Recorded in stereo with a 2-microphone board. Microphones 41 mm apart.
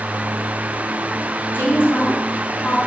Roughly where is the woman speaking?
Left.